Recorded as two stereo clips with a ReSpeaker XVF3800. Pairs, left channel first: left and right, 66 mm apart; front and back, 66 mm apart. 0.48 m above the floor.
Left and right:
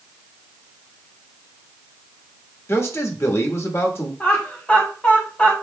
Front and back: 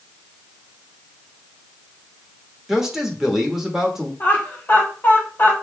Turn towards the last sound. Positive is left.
turn(degrees=35)